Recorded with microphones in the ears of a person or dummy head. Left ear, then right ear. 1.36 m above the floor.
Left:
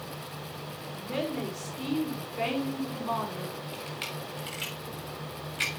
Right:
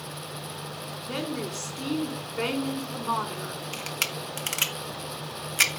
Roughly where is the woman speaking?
Right.